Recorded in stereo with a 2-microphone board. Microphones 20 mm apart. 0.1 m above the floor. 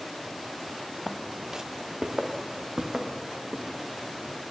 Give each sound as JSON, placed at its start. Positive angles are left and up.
{"t": 1.1, "sound": "footsteps", "side_deg": -15, "distance_m": 0.5}